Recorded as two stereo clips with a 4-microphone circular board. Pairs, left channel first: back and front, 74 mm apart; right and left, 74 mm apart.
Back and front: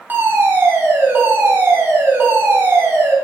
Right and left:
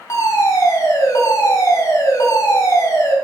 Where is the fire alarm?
55° right, 4 m.